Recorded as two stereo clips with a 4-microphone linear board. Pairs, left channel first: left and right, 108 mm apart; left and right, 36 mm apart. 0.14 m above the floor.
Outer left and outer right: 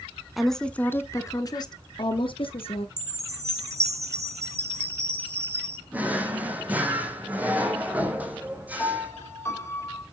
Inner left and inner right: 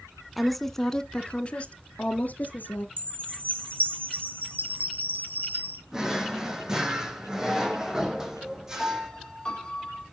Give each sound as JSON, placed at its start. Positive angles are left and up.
{"t": 0.4, "sound": "a woman speaking", "side_deg": 0, "distance_m": 1.0}
{"t": 3.0, "sound": "a chime", "side_deg": -75, "distance_m": 5.0}
{"t": 5.9, "sound": "a drawer", "side_deg": -15, "distance_m": 1.8}
{"t": 8.8, "sound": "a piano", "side_deg": 20, "distance_m": 3.5}